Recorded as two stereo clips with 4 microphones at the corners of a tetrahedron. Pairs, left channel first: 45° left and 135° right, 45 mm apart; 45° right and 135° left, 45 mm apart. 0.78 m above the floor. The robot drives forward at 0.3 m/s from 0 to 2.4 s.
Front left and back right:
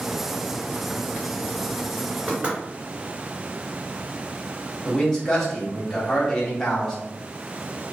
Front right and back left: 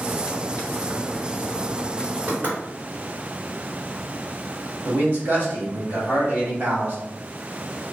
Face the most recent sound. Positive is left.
turn(degrees=120)